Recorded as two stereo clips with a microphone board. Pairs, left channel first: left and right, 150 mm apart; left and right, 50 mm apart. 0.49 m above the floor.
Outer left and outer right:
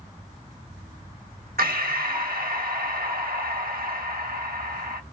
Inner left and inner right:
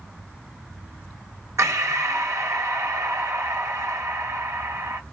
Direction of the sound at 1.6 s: 75° right (ahead or behind).